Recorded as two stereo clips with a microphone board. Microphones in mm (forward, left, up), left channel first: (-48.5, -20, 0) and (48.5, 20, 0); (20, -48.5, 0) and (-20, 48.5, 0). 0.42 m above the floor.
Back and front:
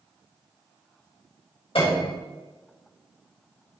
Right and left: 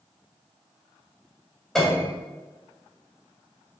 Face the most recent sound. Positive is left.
turn(degrees=-155)